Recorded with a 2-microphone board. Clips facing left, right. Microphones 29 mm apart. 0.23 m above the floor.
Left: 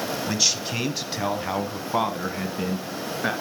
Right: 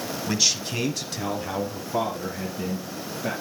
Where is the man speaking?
Centre (ahead or behind), 1.2 m; by 3.3 s 60° left (ahead or behind), 2.5 m.